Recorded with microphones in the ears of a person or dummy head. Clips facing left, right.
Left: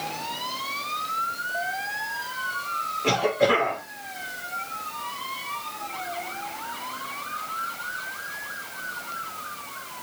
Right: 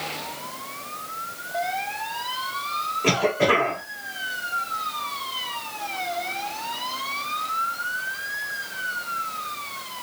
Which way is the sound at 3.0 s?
60° right (ahead or behind).